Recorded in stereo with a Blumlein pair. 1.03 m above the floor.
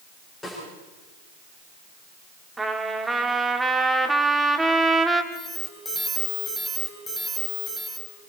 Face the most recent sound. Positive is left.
turn(degrees=15)